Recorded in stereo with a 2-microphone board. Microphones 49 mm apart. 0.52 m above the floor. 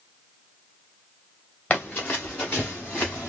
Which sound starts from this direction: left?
Running footsteps, at 1.7 s.